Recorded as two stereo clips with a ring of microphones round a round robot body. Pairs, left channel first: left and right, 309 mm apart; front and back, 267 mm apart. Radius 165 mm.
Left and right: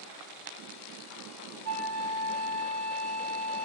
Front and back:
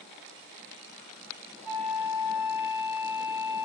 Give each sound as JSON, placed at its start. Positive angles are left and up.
{"t": 1.6, "sound": "a flute", "azimuth_deg": -120, "distance_m": 2.5}